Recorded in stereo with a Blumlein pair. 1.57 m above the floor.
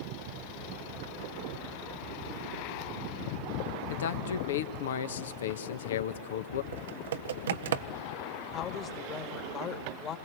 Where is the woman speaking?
30° left, 2 m.